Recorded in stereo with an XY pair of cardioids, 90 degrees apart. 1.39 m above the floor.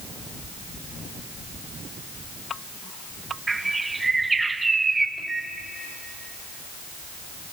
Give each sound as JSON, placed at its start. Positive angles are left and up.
{"t": 3.5, "sound": "a bird", "azimuth_deg": -25, "distance_m": 1.6}
{"t": 5.2, "sound": "a microwave", "azimuth_deg": -15, "distance_m": 5.5}